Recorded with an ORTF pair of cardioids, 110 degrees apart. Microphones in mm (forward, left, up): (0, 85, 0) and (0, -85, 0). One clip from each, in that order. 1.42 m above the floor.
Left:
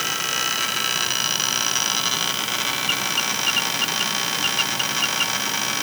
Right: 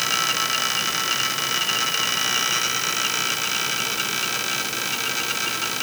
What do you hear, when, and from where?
Only background noise.